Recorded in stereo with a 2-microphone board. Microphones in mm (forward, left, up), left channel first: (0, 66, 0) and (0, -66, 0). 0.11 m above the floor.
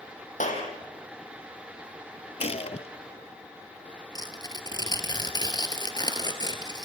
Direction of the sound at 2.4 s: 55° left (ahead or behind).